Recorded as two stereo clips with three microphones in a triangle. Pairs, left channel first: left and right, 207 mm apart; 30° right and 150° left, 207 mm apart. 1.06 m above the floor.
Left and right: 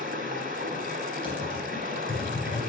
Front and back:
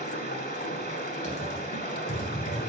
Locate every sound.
0.0 s running water: 55° right, 1.6 m
1.2 s typing on a keyboard: 25° left, 3 m